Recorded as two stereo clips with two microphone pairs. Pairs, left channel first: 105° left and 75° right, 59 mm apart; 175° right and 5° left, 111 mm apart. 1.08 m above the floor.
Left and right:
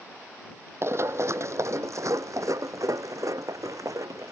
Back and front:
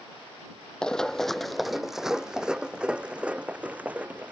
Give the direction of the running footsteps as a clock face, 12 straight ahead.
3 o'clock.